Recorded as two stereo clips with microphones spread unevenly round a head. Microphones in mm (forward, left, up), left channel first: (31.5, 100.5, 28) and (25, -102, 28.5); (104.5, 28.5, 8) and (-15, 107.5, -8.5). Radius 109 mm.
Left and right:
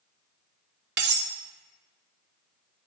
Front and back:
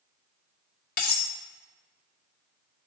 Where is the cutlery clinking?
55° right, 0.7 m.